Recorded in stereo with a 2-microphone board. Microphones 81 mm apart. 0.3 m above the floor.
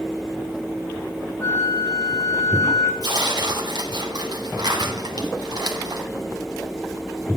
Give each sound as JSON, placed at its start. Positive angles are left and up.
{"t": 1.4, "sound": "a flute", "side_deg": 45, "distance_m": 5.0}
{"t": 3.0, "sound": "tearing paper", "side_deg": -60, "distance_m": 2.5}